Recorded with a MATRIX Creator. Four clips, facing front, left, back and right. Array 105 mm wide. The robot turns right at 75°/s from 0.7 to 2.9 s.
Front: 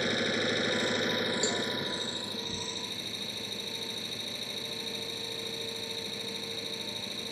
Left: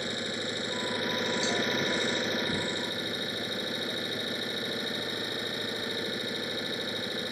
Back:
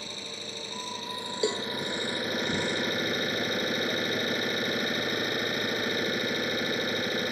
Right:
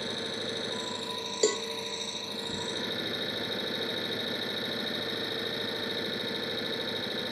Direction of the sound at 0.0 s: 10° left.